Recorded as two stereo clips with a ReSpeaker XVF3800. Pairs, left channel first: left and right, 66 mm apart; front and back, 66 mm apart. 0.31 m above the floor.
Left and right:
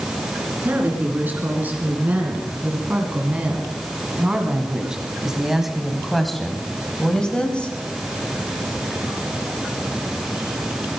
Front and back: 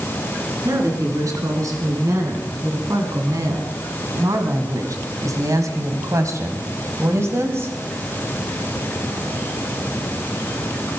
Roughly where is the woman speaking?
Behind right.